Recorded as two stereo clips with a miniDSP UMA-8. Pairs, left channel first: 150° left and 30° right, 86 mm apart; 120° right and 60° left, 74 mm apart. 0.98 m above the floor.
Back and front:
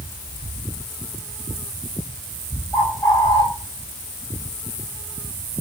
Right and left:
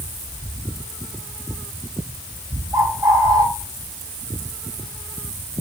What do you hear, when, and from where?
2.7 s a bird: 100° left, 2.5 m